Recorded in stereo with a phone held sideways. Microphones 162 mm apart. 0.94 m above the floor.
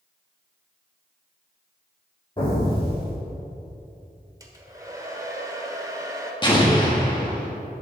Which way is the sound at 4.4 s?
20° right (ahead or behind).